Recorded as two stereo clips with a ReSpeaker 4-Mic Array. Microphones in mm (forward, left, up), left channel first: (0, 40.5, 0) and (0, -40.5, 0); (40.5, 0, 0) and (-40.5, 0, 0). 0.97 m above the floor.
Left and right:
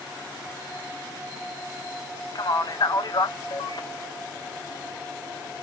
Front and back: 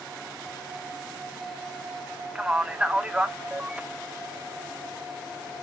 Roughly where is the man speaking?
Left.